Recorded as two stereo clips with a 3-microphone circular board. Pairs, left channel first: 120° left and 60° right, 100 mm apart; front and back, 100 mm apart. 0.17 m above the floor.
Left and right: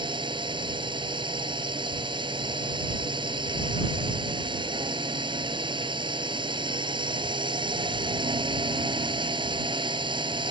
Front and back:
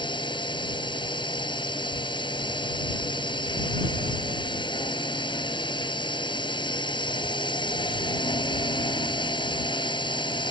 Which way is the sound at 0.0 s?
30° right.